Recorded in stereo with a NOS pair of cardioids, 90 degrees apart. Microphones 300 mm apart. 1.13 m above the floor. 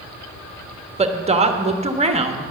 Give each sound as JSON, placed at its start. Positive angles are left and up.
{"t": 1.0, "sound": "a woman speaking", "azimuth_deg": -20, "distance_m": 1.3}